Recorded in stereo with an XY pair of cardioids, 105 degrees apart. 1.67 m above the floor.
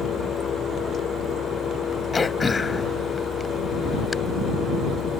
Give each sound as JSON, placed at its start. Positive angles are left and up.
{"t": 0.0, "sound": "a fan", "azimuth_deg": 55}
{"t": 2.1, "sound": "throat clearing", "azimuth_deg": 30}